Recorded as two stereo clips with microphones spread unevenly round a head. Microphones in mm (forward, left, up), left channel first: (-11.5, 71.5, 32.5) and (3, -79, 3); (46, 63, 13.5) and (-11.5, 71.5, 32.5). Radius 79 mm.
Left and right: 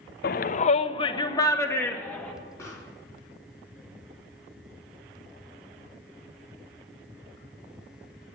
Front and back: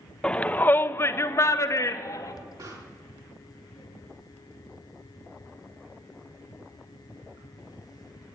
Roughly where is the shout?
Ahead left.